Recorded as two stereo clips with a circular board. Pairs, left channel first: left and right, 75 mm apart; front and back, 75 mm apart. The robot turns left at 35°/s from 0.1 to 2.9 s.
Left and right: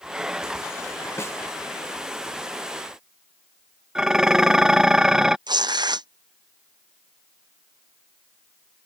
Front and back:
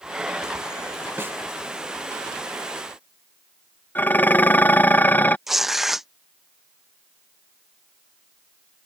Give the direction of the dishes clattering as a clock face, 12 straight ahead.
1 o'clock.